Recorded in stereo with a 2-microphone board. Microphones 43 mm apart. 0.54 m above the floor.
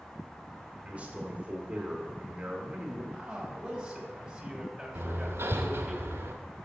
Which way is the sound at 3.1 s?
10° right (ahead or behind).